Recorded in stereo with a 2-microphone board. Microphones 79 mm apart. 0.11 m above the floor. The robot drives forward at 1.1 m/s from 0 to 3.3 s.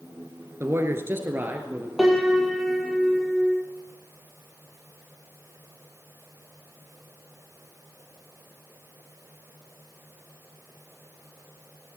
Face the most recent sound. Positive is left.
turn(degrees=0)  # may be behind; listen again after turning